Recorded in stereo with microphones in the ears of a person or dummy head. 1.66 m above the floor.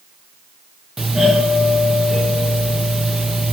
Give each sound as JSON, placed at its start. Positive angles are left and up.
{"t": 1.0, "sound": "a doorbell", "side_deg": 0, "distance_m": 1.4}